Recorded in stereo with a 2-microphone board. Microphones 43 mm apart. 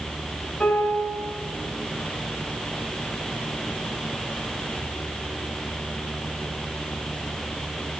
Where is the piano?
25° left (ahead or behind), 4 m.